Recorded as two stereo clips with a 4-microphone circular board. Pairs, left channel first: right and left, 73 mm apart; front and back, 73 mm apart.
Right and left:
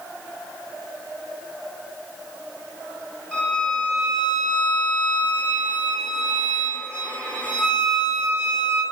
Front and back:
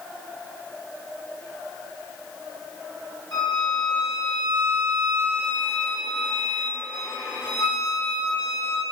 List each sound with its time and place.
3.3 s a violin: 10° right, 1.1 m